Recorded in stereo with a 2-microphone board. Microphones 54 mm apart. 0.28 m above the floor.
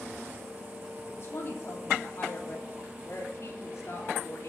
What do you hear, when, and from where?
1.1 s a woman speaking: 45° left (ahead or behind), 8.5 m; by 4.5 s 55° left (ahead or behind), 3.5 m